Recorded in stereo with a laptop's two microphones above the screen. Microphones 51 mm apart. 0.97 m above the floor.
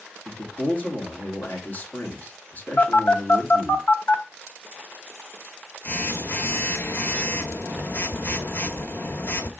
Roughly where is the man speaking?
Left.